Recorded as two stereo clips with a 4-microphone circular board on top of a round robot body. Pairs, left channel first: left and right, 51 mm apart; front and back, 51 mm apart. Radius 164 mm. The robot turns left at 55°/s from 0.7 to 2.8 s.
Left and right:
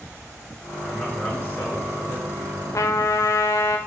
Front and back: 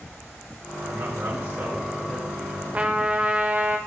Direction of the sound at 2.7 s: 115° left.